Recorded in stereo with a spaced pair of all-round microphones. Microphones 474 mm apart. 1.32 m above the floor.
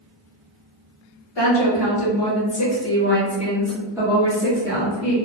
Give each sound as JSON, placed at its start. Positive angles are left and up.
{"t": 1.4, "sound": "a woman speaking", "side_deg": 60, "distance_m": 1.5}